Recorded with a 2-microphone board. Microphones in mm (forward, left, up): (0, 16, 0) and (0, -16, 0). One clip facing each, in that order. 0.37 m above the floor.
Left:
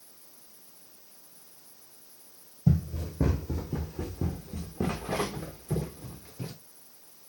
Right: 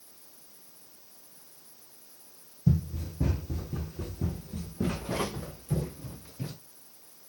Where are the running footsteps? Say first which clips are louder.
Left 1 dB; 60° left (ahead or behind), 1.3 m; by 6.5 s 25° left (ahead or behind), 3 m.